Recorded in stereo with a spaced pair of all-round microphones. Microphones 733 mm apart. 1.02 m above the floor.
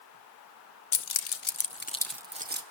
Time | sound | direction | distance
0.9 | keys jangling | 80° left | 0.8 m